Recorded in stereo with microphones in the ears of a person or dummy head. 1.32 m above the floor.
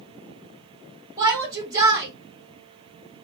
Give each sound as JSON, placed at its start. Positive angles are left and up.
{"t": 1.2, "sound": "a shout", "side_deg": -15, "distance_m": 2.0}